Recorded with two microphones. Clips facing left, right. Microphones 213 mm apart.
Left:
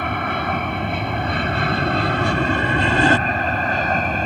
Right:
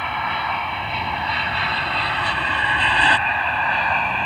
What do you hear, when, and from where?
0.0 s an aircraft: 50° left (ahead or behind); by 4.3 s 45° left (ahead or behind)